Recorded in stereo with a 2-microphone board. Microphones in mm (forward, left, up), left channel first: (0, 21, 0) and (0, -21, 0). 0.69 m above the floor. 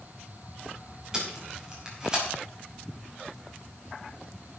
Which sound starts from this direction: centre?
Tape being pulled, at 1.1 s.